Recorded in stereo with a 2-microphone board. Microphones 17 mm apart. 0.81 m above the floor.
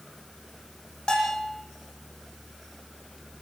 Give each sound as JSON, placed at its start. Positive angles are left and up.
{"t": 1.1, "sound": "a bell", "side_deg": 50, "distance_m": 9.0}